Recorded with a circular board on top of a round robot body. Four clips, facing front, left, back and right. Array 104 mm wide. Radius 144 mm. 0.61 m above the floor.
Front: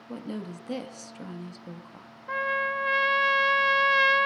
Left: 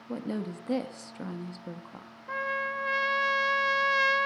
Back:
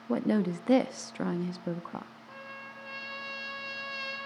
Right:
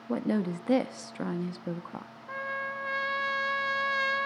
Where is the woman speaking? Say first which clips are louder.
Right 5 dB, back 9 dB; 145° right, 1.2 m.